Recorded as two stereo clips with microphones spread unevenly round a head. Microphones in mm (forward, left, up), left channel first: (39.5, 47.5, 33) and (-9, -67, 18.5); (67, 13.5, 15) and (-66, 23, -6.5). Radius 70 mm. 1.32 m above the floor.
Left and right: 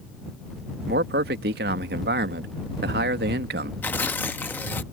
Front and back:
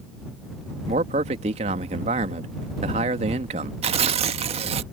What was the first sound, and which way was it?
A man speaking, 130° right.